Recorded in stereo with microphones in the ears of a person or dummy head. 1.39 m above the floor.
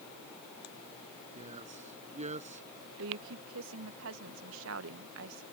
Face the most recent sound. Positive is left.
turn(degrees=-70)  # may be behind; listen again after turning